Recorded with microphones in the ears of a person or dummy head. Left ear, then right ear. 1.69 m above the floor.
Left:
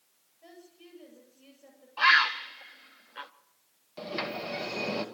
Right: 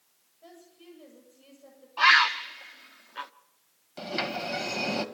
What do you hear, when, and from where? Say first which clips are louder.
0.4 s a woman speaking: right 1 dB; centre (ahead or behind), 7.5 m
2.0 s a bird: right 2 dB; 5° right (ahead or behind), 0.6 m
4.0 s a sliding door: right 3 dB; 10° right (ahead or behind), 2.0 m